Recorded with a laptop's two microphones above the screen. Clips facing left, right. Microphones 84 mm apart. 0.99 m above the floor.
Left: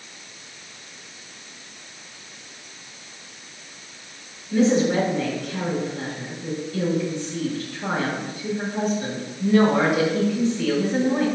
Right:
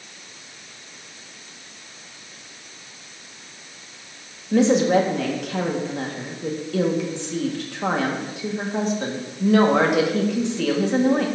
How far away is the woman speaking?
About 1.3 m.